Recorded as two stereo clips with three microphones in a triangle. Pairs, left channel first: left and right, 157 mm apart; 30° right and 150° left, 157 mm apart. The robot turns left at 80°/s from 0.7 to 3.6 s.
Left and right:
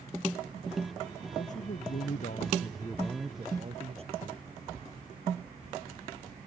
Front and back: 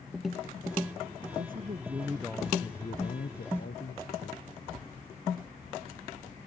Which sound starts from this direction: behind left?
A man speaking, at 1.4 s.